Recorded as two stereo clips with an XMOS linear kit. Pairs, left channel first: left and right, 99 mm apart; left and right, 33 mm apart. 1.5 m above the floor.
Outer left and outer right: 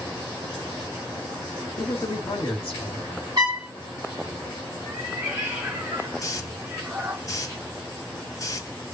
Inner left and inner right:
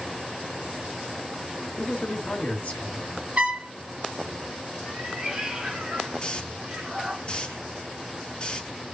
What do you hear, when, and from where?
1.8 s a man speaking: 60° left (ahead or behind), 1.2 m
3.4 s a trumpet: 40° right (ahead or behind), 1.8 m
4.8 s a cat meowing: 20° right (ahead or behind), 1.7 m
6.2 s a hiss: 35° left (ahead or behind), 0.6 m